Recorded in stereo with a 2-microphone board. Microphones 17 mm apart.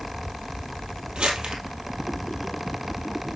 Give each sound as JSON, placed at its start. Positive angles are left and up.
{"t": 1.1, "sound": "crumpling", "side_deg": -85, "distance_m": 1.6}